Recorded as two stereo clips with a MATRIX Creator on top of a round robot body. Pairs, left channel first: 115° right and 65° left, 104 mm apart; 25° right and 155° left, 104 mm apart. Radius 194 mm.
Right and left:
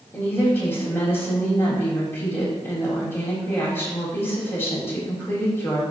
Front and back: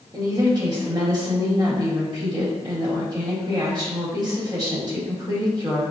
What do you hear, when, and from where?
0.1 s a woman speaking: 175° right, 1.6 m